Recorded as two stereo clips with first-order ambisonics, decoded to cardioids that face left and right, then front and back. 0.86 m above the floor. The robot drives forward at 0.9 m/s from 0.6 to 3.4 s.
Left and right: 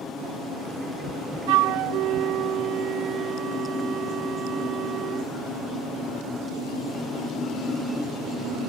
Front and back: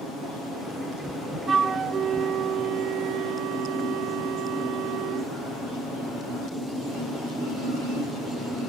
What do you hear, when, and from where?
1.5 s a flute: 110° right; by 5.3 s 145° right